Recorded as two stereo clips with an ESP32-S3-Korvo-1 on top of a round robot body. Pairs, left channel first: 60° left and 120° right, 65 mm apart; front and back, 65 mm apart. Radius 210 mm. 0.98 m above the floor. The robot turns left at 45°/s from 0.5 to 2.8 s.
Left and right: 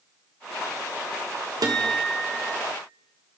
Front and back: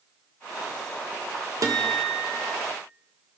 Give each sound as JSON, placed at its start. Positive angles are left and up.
{"t": 1.6, "sound": "a guitar", "azimuth_deg": -145, "distance_m": 2.0}